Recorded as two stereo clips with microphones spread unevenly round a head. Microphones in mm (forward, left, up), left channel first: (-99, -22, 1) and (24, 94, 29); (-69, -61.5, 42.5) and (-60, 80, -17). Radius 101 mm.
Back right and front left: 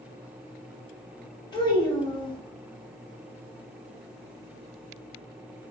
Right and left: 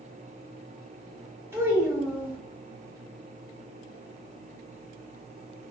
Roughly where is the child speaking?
Behind.